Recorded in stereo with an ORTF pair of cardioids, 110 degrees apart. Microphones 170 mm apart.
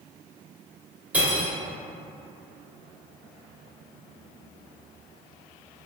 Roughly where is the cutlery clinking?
Ahead.